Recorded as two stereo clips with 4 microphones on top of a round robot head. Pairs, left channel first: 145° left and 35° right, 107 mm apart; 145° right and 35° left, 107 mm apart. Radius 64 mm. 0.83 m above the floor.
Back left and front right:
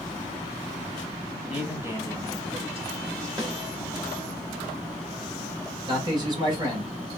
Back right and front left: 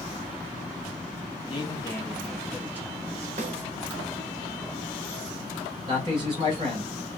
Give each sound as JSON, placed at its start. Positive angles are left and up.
{"t": 1.5, "sound": "a man speaking", "azimuth_deg": -115, "distance_m": 1.3}
{"t": 3.4, "sound": "a snare drum", "azimuth_deg": 20, "distance_m": 1.0}
{"t": 5.9, "sound": "a man speaking", "azimuth_deg": 0, "distance_m": 1.8}